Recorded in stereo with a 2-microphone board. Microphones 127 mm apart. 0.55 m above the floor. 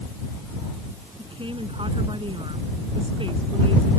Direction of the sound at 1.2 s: 40° right (ahead or behind).